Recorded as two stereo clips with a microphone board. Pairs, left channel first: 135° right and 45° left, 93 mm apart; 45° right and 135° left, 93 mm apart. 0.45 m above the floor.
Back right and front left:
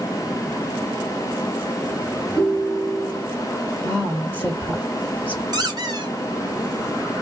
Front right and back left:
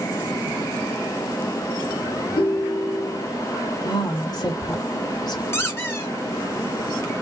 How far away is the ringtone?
About 1.5 m.